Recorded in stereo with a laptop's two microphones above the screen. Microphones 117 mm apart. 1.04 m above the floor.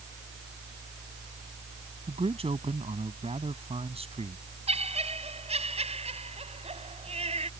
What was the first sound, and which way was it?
A fan, 60° right (ahead or behind).